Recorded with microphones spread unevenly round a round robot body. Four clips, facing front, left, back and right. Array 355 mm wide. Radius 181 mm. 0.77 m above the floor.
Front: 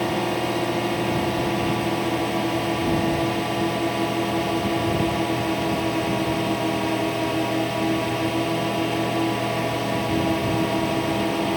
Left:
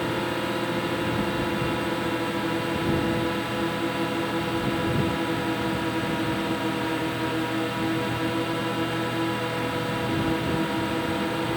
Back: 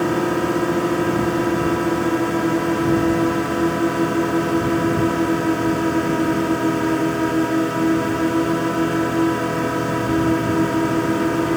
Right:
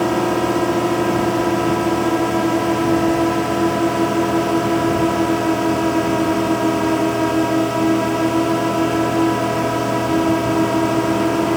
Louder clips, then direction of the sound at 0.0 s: Right 10 dB, back 4 dB; 130° right.